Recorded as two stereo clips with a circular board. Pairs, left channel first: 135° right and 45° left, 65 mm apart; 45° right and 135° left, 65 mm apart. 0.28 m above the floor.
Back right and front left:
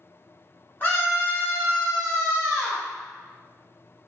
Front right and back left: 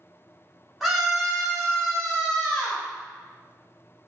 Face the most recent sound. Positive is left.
turn(degrees=-105)